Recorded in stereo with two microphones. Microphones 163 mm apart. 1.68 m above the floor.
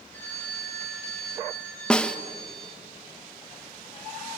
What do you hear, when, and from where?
0.1 s a phone ringing: 10° left (ahead or behind), 4 m
1.9 s a snare drum: 5° left (ahead or behind), 0.9 m